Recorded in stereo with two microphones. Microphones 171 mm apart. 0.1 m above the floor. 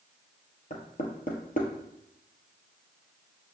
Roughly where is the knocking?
Left.